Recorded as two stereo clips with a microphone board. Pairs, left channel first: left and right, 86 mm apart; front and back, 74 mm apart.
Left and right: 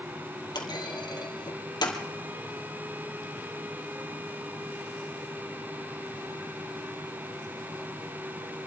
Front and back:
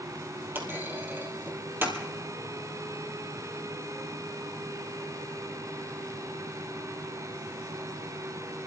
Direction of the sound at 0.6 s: 120° left.